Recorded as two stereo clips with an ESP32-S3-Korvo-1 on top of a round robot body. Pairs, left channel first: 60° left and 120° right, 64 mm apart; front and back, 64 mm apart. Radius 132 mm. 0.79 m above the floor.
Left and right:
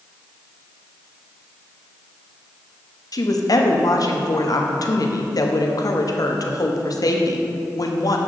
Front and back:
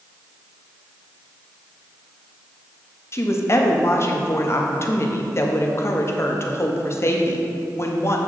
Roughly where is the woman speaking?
Ahead left.